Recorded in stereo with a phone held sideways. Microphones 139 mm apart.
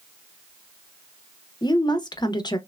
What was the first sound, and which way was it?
A woman speaking, 30° left (ahead or behind).